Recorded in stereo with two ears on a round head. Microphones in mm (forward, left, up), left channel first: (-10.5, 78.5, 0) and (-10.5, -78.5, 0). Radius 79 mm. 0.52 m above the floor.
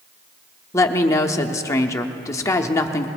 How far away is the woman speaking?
About 0.7 m.